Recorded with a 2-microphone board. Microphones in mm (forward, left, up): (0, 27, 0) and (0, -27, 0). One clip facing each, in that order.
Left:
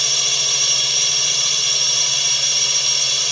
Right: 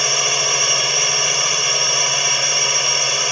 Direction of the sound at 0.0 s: 40° right (ahead or behind).